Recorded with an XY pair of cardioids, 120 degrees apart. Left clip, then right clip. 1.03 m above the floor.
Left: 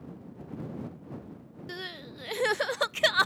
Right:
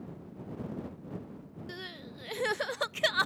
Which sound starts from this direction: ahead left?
Crying, at 1.7 s.